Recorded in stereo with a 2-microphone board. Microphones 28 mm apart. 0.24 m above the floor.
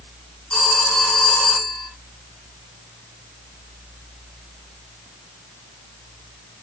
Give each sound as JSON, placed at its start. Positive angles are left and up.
{"t": 0.5, "sound": "a phone ringing", "side_deg": 45, "distance_m": 1.6}